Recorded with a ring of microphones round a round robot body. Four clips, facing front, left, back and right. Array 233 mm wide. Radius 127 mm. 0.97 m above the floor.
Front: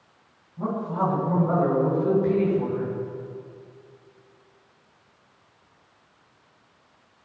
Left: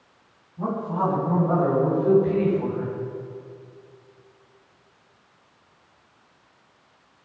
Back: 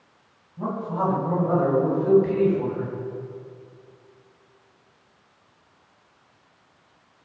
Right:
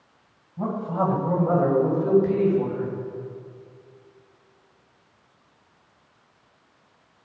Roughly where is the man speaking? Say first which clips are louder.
Even, even; right.